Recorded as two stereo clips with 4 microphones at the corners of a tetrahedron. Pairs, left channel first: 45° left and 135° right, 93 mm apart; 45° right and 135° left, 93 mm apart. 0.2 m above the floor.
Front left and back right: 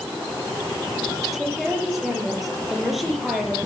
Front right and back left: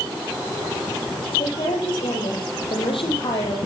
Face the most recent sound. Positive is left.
turn(degrees=-45)